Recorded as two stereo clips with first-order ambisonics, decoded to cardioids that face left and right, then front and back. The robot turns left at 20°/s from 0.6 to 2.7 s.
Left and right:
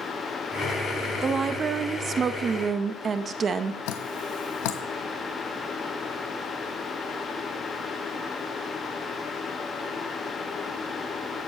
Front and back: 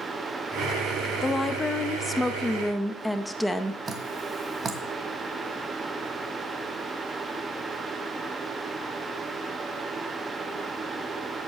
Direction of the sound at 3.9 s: 105° left.